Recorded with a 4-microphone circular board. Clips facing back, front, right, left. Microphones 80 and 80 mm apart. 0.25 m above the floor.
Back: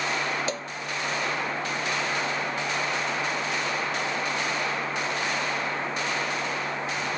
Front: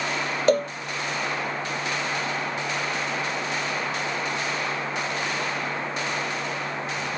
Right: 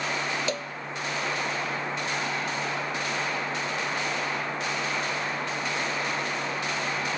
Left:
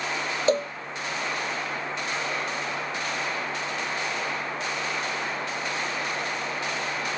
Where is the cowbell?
35° left.